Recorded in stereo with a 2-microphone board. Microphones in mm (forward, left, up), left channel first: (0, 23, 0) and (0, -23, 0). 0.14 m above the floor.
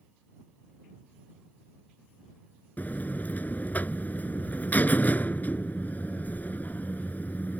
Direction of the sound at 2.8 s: 40° left (ahead or behind).